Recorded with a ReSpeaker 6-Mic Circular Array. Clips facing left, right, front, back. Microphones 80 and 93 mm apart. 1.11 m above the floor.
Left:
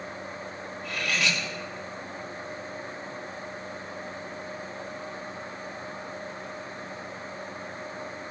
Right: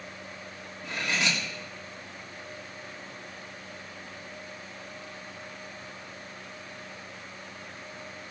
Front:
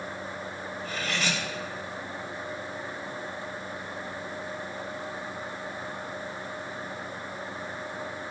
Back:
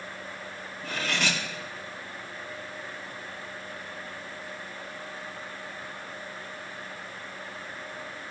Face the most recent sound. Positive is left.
turn(degrees=-155)